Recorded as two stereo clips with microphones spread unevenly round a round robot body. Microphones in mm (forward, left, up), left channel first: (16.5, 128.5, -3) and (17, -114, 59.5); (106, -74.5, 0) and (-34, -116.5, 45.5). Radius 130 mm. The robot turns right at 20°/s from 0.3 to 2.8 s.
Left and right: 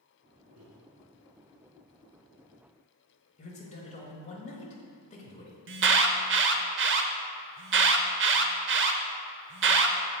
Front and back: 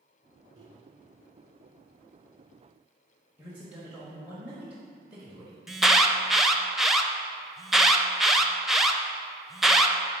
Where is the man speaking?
100° left, 1.4 m.